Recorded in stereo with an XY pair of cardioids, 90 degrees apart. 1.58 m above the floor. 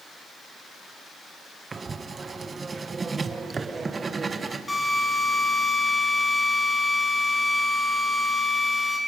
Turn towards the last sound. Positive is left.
turn(degrees=20)